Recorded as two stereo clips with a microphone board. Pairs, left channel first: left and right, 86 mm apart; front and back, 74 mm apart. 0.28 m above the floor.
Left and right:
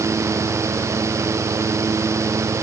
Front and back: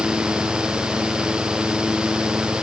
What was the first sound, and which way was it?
Only background noise.